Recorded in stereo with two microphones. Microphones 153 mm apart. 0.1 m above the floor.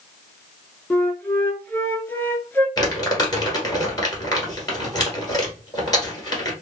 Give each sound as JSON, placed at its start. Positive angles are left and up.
{"t": 0.9, "sound": "a flute", "side_deg": 10, "distance_m": 0.7}
{"t": 2.8, "sound": "crumpling", "side_deg": 25, "distance_m": 1.5}